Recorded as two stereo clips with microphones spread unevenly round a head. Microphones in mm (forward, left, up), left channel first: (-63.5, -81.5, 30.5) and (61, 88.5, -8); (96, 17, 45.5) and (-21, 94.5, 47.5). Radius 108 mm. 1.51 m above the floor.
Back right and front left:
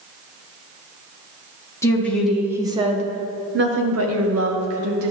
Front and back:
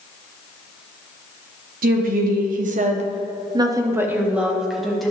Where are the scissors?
I don't hear scissors.